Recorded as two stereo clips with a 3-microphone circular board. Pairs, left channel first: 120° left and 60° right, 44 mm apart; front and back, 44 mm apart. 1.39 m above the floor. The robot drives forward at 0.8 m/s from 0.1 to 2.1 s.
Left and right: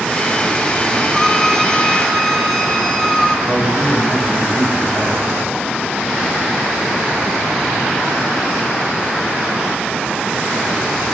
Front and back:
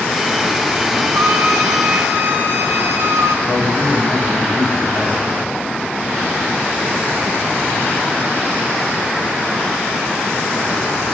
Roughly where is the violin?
Behind right.